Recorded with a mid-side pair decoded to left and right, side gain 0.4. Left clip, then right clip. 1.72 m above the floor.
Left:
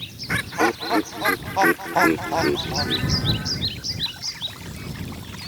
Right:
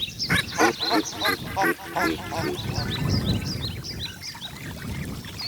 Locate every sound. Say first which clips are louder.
0.3 s laughter: even; 15° right; by 3.7 s 70° left